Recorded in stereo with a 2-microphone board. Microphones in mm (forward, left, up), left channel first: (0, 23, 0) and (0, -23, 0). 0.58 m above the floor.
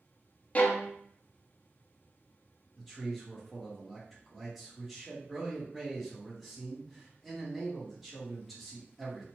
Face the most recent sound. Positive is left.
turn(degrees=-5)  # may be behind; listen again after turning